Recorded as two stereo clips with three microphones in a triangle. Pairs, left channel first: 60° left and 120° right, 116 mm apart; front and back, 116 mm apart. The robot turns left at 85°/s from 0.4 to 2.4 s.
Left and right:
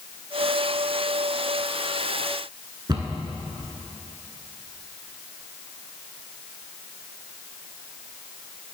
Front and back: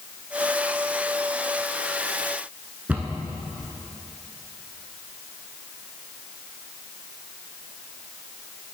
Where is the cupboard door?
115° right, 0.9 m.